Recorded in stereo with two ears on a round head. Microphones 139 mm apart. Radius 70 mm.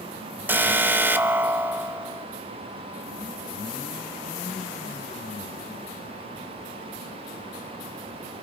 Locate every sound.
0.5 s an alarm: 10° right (ahead or behind), 1.2 m